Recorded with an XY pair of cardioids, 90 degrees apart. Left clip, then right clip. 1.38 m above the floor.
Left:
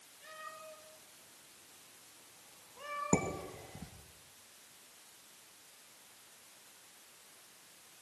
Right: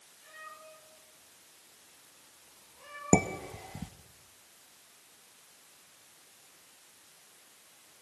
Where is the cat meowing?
55° left, 7.5 m; by 3.5 s 70° left, 9 m.